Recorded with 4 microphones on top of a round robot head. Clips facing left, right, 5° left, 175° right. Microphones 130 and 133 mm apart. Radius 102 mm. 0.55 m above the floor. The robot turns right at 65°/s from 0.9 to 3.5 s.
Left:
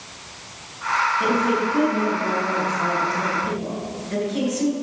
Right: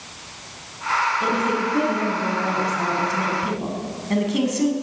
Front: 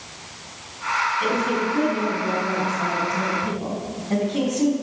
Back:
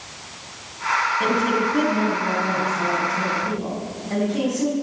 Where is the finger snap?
No finger snap in this recording.